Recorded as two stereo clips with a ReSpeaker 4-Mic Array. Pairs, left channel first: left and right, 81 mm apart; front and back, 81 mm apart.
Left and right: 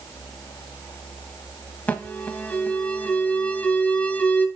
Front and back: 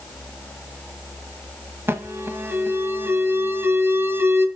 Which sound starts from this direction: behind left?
An alarm, at 1.9 s.